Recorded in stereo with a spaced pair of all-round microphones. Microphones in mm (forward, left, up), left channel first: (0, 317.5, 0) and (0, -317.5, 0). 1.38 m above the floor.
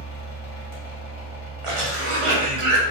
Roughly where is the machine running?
Left.